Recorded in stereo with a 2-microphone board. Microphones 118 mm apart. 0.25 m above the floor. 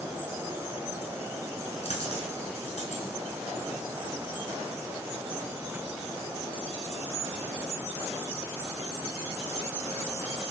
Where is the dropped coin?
60° left (ahead or behind), 1.4 m.